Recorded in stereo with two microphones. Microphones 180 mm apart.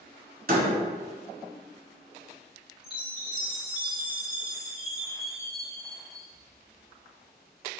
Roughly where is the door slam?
Right.